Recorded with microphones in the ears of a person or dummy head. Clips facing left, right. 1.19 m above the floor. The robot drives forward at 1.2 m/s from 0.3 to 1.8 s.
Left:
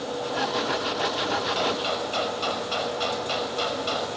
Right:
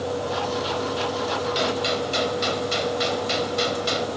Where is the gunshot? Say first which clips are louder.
Right 3 dB; 25° right (ahead or behind), 5.5 m.